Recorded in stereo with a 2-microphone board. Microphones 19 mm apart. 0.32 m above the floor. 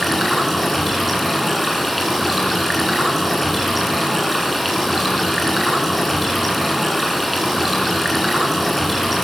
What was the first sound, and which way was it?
Running water, centre (ahead or behind).